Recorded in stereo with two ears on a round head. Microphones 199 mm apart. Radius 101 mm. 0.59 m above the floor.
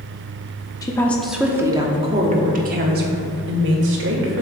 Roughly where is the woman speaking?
Centre.